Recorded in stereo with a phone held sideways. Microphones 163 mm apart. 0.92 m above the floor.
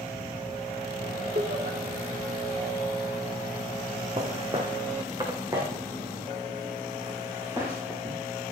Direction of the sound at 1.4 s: 70° right (ahead or behind).